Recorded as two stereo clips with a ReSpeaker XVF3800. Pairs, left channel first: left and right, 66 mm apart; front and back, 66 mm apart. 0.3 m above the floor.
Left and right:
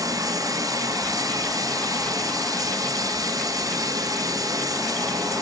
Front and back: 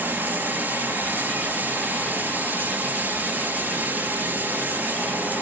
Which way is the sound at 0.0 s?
120° right.